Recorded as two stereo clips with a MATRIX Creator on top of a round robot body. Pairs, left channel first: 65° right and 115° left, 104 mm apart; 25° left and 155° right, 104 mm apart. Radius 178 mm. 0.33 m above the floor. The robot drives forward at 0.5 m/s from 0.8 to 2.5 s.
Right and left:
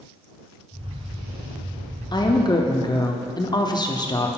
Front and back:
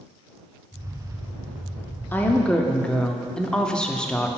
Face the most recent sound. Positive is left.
turn(degrees=-55)